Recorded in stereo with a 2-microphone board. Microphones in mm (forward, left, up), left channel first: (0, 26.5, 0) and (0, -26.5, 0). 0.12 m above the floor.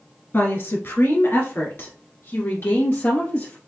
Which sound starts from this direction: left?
A woman speaking, at 0.3 s.